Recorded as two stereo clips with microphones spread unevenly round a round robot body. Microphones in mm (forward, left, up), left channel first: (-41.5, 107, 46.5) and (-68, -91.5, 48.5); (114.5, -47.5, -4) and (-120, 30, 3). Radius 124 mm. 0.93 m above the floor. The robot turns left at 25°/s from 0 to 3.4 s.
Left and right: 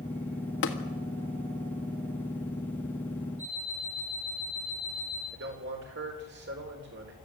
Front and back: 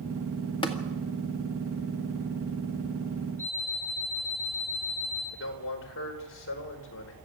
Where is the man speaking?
60° right, 4 m.